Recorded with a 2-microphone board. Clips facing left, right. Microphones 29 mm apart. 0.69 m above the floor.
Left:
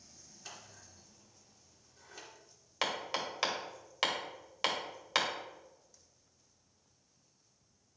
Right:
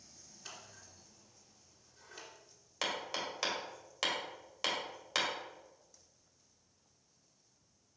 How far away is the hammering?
About 1.8 m.